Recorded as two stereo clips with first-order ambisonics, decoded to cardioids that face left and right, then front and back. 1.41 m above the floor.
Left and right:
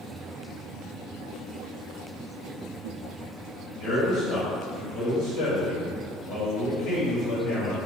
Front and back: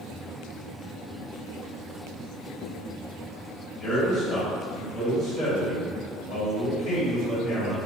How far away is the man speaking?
About 1.7 m.